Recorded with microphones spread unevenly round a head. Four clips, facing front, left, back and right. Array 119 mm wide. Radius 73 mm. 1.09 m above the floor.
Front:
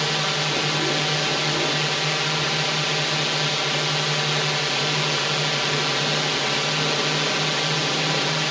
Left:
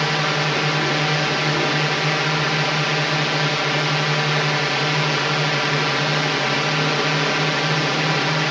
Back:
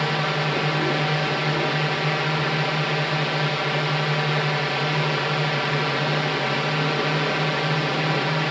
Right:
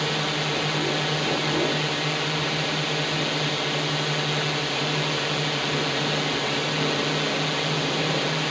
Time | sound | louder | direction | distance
0.0 | a drone | left 5 dB, back 2 dB | 90° left | ?